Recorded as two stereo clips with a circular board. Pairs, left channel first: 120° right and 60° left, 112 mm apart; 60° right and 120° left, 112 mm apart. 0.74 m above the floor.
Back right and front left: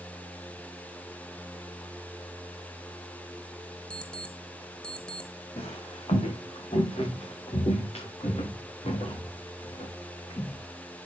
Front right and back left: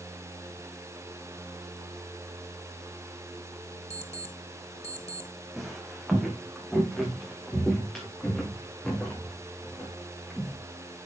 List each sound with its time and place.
3.9 s an alarm clock: 40° right, 1.1 m
5.6 s footsteps: 150° right, 3 m; by 10.6 s 140° right, 6.5 m